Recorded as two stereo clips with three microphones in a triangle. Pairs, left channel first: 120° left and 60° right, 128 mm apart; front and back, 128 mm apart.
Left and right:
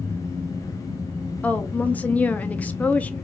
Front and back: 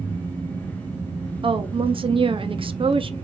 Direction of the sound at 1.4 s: 165° right.